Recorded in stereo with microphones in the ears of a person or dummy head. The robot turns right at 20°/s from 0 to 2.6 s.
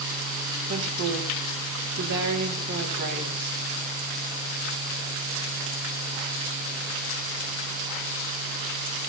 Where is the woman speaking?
95° right, 4 m; by 3.6 s 55° right, 4 m.